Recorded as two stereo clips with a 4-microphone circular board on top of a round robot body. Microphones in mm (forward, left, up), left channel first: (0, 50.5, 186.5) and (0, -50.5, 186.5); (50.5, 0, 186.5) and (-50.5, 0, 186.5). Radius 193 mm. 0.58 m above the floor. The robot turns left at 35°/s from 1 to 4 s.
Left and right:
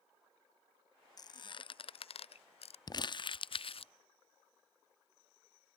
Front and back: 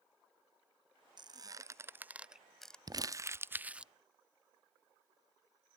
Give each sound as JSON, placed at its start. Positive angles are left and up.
{"t": 1.2, "sound": "a squeak", "azimuth_deg": 140}
{"t": 2.9, "sound": "crumpling", "azimuth_deg": 135}